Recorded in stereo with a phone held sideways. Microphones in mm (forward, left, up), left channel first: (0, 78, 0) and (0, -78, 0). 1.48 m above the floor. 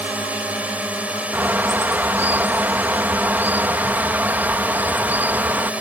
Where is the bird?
15° right (ahead or behind).